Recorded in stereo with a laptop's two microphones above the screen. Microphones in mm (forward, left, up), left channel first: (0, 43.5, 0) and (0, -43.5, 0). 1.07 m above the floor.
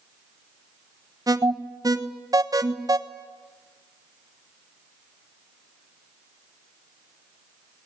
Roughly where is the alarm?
Right.